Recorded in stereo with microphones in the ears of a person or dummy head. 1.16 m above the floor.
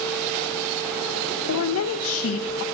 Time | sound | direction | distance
1.5 | a woman speaking | 70° left (ahead or behind) | 0.9 m